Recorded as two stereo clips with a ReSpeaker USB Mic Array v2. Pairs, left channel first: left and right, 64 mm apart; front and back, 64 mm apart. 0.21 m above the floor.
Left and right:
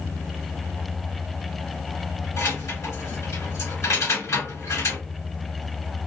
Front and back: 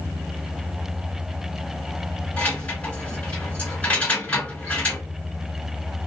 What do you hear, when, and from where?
2.4 s keys jangling: 65° left, 1.5 m